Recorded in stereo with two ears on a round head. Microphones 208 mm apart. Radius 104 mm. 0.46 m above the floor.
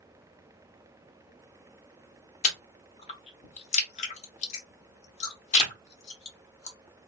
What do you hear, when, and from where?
2.4 s chewing: 30° left (ahead or behind), 0.9 m